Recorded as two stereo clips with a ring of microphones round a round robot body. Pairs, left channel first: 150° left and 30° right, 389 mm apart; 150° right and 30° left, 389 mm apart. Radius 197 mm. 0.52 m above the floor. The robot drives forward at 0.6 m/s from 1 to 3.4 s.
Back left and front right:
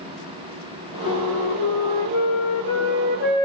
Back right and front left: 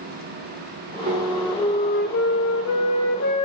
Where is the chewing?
I don't hear chewing.